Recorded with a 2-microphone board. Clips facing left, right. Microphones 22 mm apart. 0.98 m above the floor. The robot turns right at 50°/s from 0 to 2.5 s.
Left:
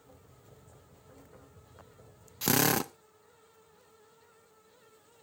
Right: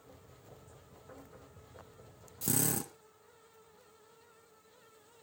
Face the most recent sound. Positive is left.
turn(degrees=55)  # may be behind; listen again after turning